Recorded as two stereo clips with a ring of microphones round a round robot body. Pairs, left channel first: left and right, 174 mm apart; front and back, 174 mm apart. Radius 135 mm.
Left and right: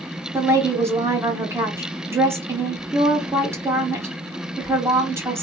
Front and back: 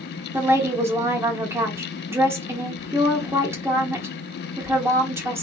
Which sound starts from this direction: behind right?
A woman speaking, at 0.3 s.